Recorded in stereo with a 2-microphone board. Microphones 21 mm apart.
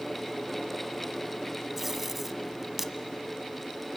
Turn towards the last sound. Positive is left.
turn(degrees=-15)  # may be behind; listen again after turning